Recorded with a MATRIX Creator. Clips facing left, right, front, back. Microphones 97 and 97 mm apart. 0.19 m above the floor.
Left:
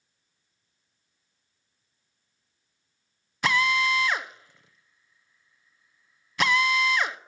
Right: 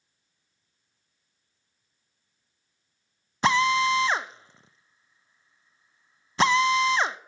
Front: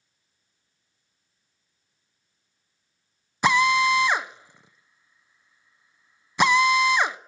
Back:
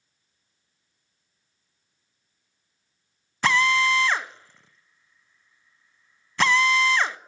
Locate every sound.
3.4 s a drill: 60° right, 0.6 m